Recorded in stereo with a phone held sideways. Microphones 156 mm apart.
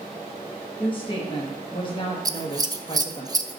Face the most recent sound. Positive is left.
turn(degrees=-25)  # may be behind; listen again after turning